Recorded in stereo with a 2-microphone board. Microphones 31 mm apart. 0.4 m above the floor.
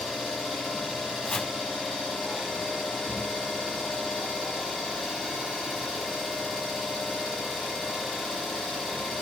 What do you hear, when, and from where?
0.0 s an engine running: 5° left (ahead or behind), 8.5 m
1.2 s chopping: 25° left (ahead or behind), 1.3 m